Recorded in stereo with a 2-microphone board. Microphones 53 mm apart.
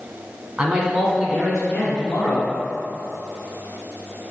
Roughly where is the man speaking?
Centre.